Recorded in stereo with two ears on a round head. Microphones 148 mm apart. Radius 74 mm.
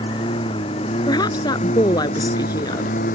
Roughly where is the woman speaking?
Left.